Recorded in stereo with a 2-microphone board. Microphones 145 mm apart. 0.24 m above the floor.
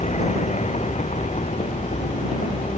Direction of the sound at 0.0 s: 50° left (ahead or behind).